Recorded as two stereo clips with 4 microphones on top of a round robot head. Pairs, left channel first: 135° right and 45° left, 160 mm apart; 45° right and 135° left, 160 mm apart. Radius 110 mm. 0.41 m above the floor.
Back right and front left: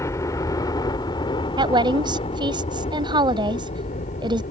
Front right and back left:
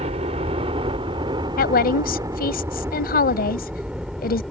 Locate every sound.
0.0 s a helicopter: 160° left; by 4.5 s 135° right
1.6 s a woman speaking: 15° right